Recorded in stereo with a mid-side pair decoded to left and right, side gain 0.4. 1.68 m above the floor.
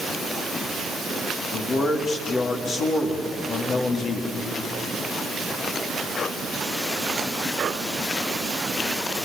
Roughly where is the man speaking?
Ahead left.